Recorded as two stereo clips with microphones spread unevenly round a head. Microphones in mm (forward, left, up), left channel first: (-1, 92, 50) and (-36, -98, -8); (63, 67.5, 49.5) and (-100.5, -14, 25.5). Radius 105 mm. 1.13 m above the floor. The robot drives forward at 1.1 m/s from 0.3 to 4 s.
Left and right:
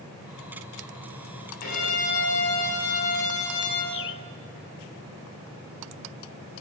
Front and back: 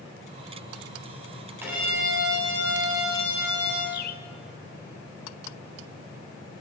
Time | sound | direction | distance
1.6 | a violin | 125° left | 8 m
3.9 | a bird | 55° left | 0.7 m